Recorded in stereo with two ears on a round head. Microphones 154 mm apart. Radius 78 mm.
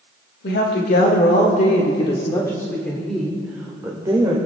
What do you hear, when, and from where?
0.4 s a woman speaking: 70° left (ahead or behind), 1.8 m; by 4.4 s 25° right (ahead or behind), 2.0 m